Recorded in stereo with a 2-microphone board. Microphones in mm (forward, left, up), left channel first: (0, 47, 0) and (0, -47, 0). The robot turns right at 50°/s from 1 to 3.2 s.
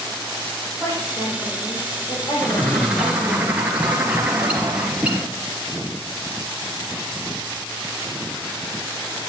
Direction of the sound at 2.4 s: 155° left.